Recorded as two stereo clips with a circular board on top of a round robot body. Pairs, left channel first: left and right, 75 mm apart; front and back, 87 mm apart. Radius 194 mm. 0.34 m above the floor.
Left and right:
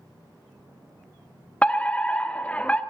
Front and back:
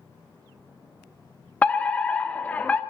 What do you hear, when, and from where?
1.6 s a fire alarm: 45° left, 1.9 m